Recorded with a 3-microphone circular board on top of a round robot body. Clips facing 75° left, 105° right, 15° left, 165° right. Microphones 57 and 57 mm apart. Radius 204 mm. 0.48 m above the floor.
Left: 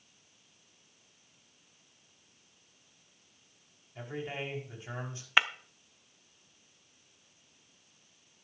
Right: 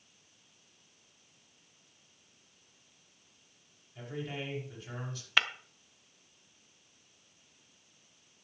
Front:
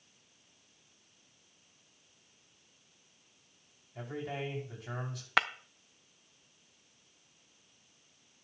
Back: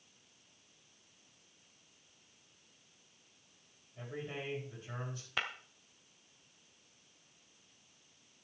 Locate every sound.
4.0 s a man speaking: 10° left, 6 m
5.4 s breaking glass: straight ahead, 0.9 m